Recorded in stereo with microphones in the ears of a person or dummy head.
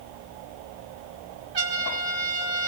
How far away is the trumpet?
About 3 m.